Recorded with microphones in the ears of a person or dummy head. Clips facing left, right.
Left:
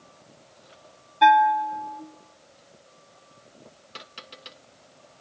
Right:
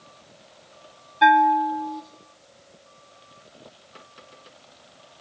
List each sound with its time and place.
1.2 s a bell: centre (ahead or behind), 0.6 m